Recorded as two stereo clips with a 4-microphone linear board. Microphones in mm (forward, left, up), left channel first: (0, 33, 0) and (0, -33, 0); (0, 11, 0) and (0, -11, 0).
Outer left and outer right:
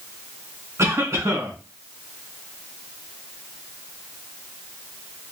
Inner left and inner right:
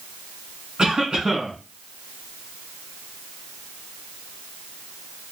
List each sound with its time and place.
0.8 s a cough: 45° right (ahead or behind), 2 m